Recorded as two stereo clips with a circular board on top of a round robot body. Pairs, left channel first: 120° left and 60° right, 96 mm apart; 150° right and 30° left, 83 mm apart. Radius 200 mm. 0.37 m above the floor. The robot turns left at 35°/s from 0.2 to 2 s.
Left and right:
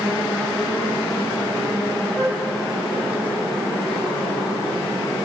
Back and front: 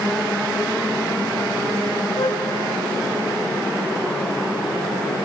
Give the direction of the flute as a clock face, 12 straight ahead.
5 o'clock.